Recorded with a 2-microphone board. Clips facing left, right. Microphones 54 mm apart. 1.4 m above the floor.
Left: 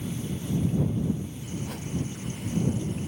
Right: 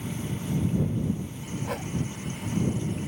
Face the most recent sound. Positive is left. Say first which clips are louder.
# right 3 dB
turn(degrees=-60)  # may be behind; listen again after turning